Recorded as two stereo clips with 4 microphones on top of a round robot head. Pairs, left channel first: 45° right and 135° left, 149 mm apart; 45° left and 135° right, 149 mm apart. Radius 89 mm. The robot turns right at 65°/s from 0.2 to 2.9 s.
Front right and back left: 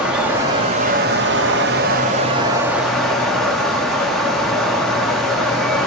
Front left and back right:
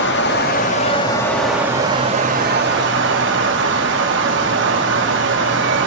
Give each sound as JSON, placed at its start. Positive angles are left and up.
{"t": 0.0, "sound": "running water", "azimuth_deg": 50, "distance_m": 0.8}